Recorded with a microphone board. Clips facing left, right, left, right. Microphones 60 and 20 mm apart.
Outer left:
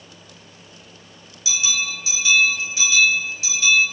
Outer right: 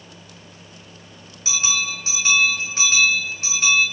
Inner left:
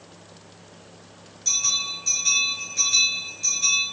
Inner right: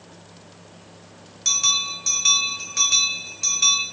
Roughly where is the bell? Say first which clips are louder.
Outer right 1 dB, inner right 3 dB; right.